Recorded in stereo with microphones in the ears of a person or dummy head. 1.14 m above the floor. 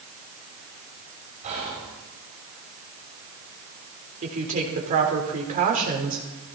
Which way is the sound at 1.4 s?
35° right (ahead or behind).